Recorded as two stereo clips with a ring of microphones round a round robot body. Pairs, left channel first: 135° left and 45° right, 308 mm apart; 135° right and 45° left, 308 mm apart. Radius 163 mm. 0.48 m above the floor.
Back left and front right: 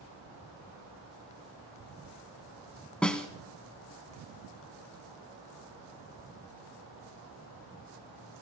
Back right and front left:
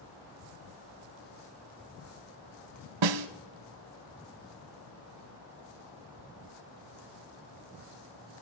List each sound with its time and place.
3.0 s a snare drum: 50° left, 0.7 m